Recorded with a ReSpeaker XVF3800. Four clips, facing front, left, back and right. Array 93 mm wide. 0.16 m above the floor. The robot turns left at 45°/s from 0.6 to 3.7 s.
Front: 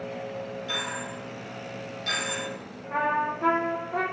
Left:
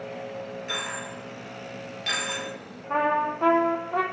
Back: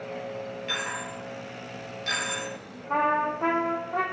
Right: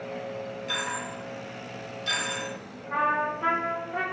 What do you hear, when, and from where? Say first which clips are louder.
0.7 s a dropped coin: right 2 dB, back 2 dB; 160° left, 1.6 m; by 2.5 s 80° left, 1.6 m
2.9 s a trumpet: left 2 dB, back 2 dB; 130° left, 0.7 m; by 4.0 s 95° left, 0.7 m